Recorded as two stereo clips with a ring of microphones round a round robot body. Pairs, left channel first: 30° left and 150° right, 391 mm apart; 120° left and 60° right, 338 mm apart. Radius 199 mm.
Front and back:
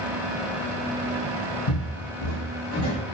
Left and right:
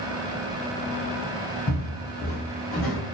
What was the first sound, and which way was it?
Footsteps, 60° left.